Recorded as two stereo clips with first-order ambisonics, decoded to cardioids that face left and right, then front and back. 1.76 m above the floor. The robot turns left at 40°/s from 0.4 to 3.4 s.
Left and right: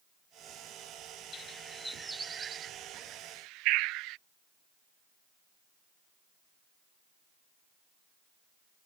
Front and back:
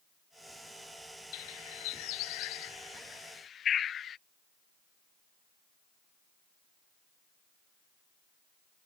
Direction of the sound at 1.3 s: 20° left.